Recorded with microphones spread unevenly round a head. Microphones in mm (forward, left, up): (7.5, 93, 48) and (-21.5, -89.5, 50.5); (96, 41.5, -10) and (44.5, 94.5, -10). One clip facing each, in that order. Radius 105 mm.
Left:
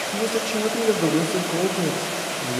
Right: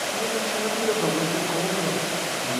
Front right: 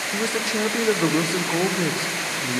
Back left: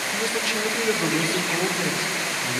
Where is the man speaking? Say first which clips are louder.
Left 6 dB, front right 3 dB; 25° left, 0.6 m.